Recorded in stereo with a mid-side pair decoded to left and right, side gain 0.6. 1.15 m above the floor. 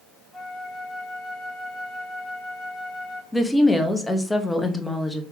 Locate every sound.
0.3 s a flute: 30° left, 1.3 m
3.3 s a woman speaking: 5° left, 1.0 m